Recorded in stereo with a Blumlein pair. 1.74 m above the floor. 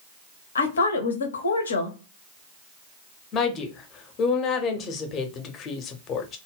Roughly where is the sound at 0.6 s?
Left.